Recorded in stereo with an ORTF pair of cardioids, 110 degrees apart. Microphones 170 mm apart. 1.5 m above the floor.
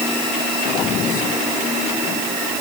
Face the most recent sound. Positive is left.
No sound to turn to.